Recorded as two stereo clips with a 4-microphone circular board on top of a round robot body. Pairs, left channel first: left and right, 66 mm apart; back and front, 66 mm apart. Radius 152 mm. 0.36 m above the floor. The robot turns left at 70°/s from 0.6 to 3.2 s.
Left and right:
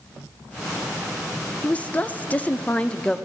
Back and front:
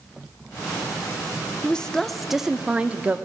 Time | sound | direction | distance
1.6 | a woman speaking | 130° left | 0.8 m